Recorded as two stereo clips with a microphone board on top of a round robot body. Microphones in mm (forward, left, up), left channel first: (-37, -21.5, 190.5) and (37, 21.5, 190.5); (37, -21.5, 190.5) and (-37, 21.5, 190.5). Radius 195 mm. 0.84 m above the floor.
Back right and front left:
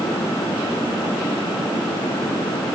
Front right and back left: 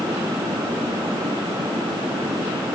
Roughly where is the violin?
No violin in this recording.